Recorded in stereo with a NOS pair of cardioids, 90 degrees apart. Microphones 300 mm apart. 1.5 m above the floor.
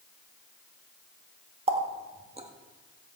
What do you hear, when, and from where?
1.7 s a running tap: 20° right, 1.6 m